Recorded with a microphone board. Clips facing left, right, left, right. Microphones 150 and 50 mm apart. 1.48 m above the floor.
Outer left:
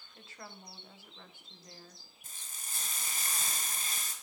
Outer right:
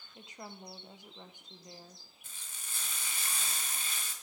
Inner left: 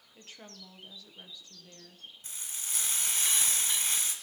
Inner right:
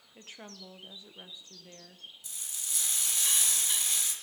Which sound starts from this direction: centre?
A woman speaking, at 0.1 s.